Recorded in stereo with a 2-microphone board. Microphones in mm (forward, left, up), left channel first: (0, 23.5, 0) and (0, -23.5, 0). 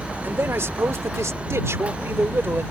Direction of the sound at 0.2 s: 55° right (ahead or behind).